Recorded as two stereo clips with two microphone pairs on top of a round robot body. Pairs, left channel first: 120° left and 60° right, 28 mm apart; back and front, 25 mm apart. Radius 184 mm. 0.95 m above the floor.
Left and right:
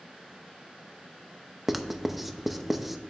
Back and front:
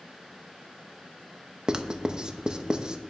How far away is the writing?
About 0.8 m.